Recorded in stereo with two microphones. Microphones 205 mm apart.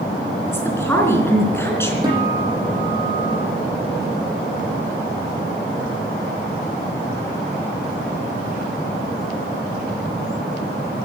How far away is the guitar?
About 8 m.